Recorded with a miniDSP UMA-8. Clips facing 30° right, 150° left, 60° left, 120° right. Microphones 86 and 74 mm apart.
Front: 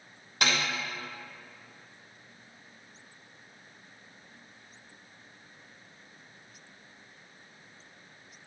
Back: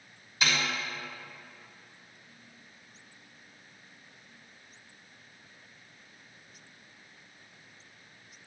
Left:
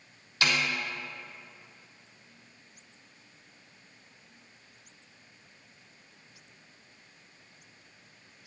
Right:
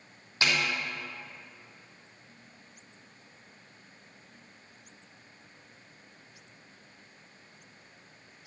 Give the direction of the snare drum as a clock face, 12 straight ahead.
2 o'clock.